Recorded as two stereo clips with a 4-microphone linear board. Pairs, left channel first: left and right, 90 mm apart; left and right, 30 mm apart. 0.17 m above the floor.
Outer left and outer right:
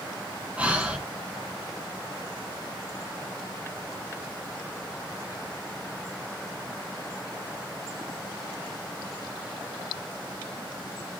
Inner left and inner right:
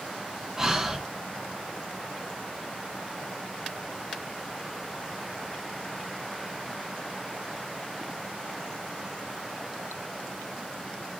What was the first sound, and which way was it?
Breathing, 15° right (ahead or behind).